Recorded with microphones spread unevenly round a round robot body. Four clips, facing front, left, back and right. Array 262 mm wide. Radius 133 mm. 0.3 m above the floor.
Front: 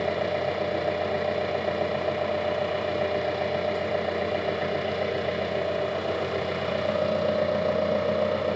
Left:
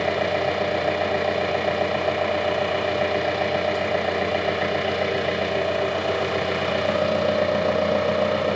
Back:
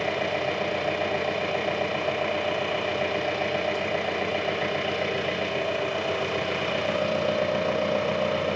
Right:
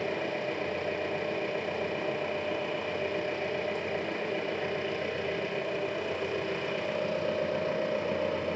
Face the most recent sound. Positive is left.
turn(degrees=95)